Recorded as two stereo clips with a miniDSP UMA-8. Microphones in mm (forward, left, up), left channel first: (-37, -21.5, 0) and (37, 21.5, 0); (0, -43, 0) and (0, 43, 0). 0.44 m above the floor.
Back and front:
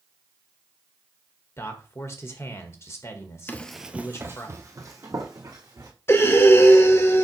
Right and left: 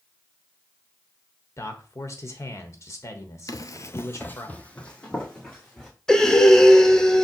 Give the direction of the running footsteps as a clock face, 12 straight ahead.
3 o'clock.